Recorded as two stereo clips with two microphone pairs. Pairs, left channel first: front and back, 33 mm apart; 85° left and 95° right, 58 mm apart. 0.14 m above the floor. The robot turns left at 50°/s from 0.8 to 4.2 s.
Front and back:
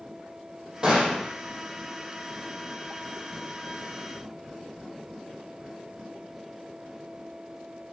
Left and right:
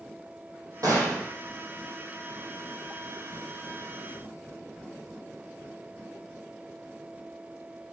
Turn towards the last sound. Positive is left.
turn(degrees=75)